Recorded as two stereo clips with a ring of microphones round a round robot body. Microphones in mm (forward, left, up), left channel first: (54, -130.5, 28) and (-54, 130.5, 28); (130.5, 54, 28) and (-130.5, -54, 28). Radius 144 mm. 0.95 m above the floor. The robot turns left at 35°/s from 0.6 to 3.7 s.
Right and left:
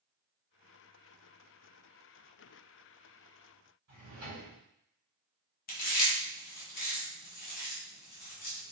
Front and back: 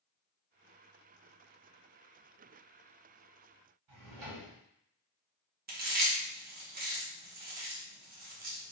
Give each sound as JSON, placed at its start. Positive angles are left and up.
{"t": 3.9, "sound": "a drawer", "azimuth_deg": 170, "distance_m": 1.8}
{"t": 5.7, "sound": "chewing", "azimuth_deg": -110, "distance_m": 1.0}